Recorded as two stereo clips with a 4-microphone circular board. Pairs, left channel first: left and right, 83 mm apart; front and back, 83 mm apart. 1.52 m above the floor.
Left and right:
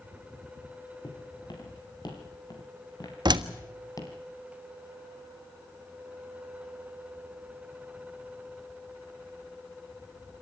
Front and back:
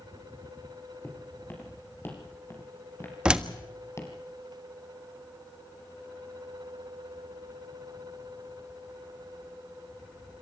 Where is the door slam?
100° right, 1.4 m.